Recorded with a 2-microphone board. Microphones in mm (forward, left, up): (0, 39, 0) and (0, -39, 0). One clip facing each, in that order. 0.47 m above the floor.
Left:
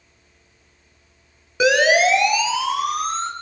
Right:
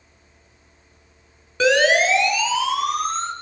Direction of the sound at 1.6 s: 15° left (ahead or behind).